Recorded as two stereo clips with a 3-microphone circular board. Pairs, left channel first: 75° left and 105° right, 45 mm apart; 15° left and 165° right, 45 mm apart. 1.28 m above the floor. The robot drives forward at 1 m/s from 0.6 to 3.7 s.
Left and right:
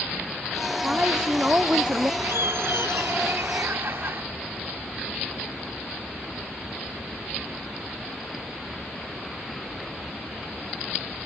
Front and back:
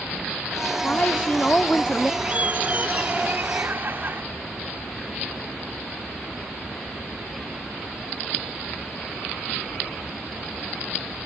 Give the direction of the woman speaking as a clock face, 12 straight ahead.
1 o'clock.